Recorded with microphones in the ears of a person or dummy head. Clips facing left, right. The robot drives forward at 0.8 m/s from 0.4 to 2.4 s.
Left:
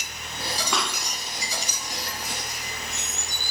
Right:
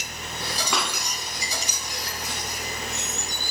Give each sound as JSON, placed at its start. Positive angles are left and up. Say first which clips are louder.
{"t": 0.7, "sound": "a pop", "louder": "right 1 dB", "side_deg": -5, "distance_m": 1.9}